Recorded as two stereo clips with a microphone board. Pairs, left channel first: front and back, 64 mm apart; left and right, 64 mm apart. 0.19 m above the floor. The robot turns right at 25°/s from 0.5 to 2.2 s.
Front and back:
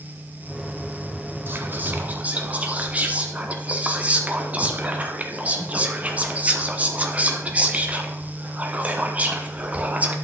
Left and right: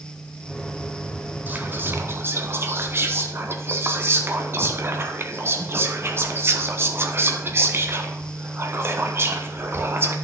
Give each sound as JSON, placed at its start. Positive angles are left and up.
{"t": 1.5, "sound": "whispering", "azimuth_deg": -140, "distance_m": 1.4}